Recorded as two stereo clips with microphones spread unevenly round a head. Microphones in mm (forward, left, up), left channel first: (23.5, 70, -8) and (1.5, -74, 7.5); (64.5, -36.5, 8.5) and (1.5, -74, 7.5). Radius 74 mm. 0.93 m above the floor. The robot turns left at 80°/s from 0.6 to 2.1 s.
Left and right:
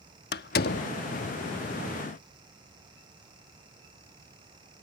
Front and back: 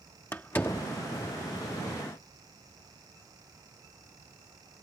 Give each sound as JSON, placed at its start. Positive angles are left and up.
{"t": 0.3, "sound": "a door slam", "azimuth_deg": 110}